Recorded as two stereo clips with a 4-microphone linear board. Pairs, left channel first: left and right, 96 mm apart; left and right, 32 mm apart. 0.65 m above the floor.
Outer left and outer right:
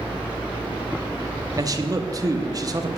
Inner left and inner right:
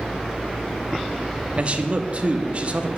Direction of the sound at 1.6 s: 35° right (ahead or behind).